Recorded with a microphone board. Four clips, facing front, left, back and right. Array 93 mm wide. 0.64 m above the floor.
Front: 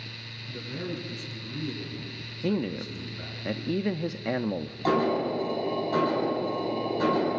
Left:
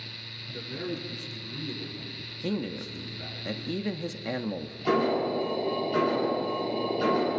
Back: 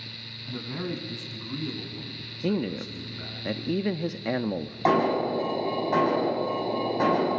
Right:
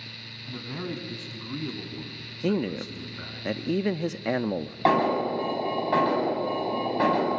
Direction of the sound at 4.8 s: 115° right.